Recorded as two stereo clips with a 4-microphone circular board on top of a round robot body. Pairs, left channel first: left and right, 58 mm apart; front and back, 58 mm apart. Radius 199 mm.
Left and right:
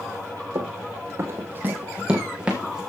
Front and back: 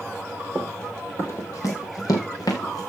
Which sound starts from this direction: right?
Running footsteps, at 0.6 s.